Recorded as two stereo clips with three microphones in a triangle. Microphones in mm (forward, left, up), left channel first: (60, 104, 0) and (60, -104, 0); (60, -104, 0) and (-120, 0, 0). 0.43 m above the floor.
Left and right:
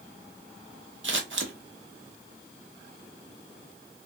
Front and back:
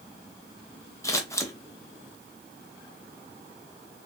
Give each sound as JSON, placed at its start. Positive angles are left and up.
{"t": 1.0, "sound": "scissors", "azimuth_deg": -105, "distance_m": 0.6}